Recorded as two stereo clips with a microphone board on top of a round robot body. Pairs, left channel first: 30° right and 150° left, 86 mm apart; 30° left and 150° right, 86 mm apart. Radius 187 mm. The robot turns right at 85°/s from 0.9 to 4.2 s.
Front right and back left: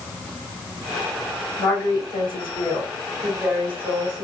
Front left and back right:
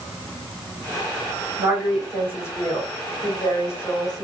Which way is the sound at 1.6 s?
100° right.